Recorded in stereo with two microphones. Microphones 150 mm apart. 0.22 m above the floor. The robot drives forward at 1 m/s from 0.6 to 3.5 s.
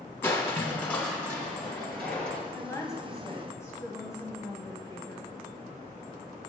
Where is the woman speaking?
20° left (ahead or behind), 1.2 m.